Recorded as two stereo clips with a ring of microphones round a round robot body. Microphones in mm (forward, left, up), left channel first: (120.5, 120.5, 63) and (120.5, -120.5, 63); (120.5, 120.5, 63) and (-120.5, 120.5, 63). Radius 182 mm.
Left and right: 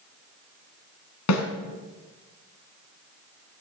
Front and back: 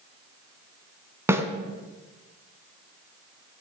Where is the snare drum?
100° left, 1.7 m.